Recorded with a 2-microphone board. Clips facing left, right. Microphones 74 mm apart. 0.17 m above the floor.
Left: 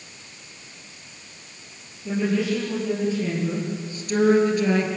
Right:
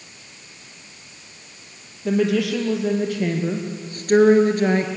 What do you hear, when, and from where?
2.0 s a woman speaking: 70° right (ahead or behind), 4 m; by 4.9 s 40° right (ahead or behind), 3 m